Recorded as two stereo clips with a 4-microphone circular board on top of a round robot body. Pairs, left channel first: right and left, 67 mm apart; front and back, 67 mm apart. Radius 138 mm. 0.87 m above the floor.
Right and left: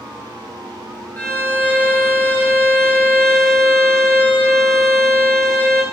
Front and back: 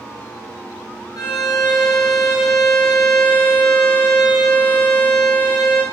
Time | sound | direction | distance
1.2 | a violin | 25° right | 6.5 m